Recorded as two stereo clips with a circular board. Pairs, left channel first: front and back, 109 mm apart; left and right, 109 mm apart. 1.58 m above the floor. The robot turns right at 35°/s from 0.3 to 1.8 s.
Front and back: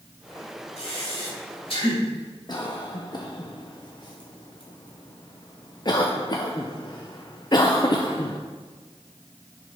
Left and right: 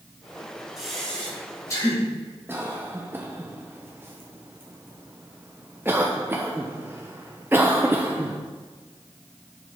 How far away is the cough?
About 0.6 m.